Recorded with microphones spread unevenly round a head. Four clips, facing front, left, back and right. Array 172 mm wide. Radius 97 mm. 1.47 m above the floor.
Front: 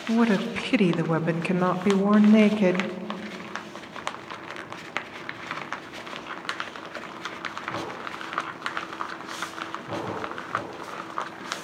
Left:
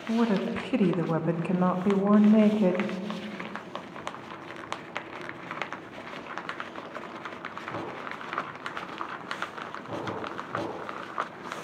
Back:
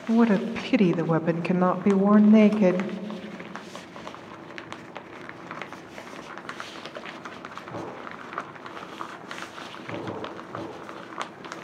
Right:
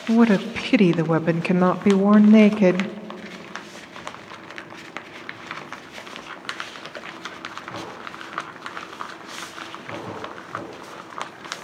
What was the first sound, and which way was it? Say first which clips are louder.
A woman speaking: right 8 dB, back 1 dB; 75° right.